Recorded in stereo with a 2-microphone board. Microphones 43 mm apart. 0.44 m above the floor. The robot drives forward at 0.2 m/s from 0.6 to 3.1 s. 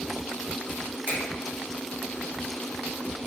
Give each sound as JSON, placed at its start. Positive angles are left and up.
{"t": 1.1, "sound": "a finger snap", "side_deg": -55, "distance_m": 1.4}